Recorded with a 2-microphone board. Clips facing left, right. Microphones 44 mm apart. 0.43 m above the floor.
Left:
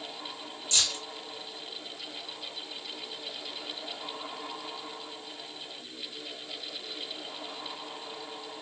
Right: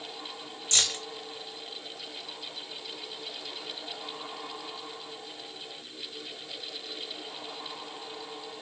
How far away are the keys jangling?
About 1.1 m.